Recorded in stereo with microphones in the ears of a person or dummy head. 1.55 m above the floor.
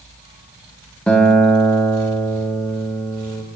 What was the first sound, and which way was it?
A guitar, 5° left (ahead or behind).